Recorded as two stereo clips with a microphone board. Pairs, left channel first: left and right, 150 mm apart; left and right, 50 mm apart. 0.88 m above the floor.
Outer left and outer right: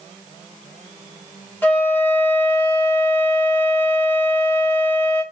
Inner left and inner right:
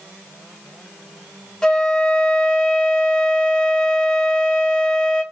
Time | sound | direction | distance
1.6 | a flute | 15° left (ahead or behind) | 1.3 m